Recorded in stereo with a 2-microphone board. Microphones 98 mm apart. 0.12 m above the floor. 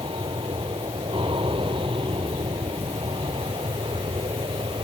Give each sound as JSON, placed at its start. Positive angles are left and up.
{"t": 0.0, "sound": "an aircraft", "side_deg": -60}